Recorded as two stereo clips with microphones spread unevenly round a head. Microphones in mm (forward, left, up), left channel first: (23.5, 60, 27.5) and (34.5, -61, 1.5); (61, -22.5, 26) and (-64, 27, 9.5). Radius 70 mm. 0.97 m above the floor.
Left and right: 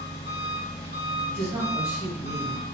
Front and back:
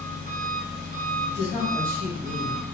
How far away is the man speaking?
About 1.6 m.